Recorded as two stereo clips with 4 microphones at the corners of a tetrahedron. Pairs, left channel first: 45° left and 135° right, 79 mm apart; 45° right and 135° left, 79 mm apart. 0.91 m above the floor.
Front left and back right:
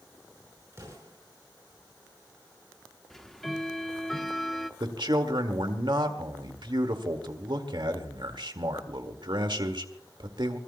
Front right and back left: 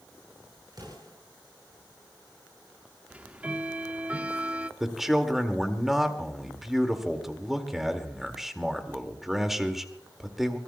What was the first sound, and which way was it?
An explosion, 170° left.